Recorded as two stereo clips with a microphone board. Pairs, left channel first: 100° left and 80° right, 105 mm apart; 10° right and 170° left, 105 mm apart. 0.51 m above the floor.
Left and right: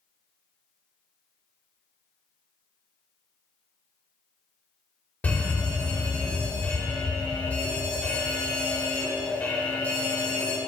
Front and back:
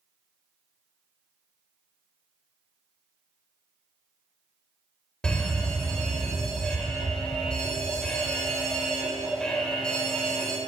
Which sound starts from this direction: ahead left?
A fire alarm, at 5.2 s.